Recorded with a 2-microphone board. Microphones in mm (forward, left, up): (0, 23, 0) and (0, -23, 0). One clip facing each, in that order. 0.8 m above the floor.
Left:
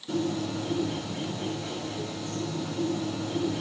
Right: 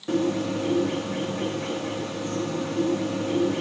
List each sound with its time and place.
0.1 s a bird: 55° right (ahead or behind), 1.5 m